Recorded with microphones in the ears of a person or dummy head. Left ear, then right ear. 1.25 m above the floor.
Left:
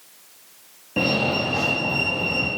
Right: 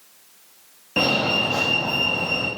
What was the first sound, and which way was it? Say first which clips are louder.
A fire alarm: right 2 dB; 35° right (ahead or behind).